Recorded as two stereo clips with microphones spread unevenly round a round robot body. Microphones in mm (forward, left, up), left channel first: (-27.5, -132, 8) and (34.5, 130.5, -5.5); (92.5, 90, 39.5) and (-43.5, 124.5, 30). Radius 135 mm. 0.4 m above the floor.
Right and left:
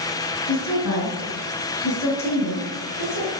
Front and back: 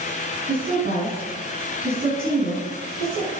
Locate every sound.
0.5 s a woman speaking: 135° right, 4.5 m